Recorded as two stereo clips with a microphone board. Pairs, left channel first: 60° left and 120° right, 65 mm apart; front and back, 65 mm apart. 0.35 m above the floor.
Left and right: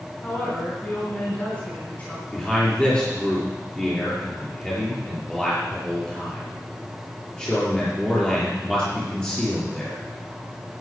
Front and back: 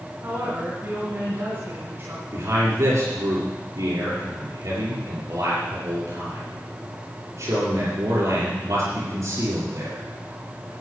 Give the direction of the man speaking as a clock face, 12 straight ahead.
7 o'clock.